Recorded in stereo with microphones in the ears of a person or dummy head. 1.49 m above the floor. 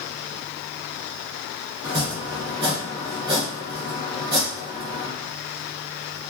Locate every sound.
1.8 s chopping: 25° right (ahead or behind), 1.0 m